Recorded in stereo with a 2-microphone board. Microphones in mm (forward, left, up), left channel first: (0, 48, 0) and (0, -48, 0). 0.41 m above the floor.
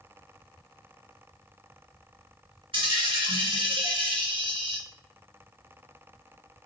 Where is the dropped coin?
80° right, 1.6 m.